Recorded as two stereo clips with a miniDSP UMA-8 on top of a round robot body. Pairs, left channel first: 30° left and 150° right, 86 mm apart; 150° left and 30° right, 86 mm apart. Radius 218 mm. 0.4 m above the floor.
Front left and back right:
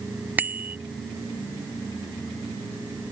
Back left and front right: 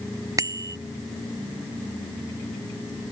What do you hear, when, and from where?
0.4 s a bicycle bell: 80° right